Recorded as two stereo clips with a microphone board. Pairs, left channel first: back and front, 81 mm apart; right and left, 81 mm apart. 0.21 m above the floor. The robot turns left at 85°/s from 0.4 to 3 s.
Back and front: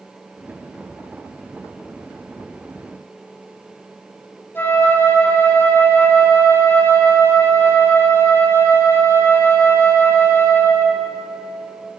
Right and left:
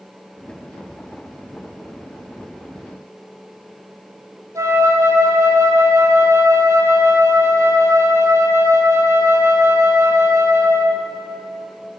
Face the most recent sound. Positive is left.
turn(degrees=125)